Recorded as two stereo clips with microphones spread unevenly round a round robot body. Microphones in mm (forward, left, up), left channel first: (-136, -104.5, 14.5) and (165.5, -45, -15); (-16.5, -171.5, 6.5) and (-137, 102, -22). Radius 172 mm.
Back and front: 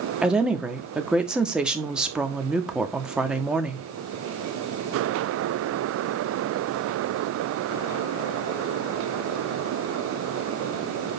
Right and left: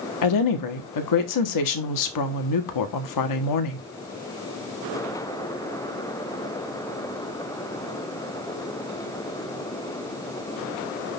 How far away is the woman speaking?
About 1.5 m.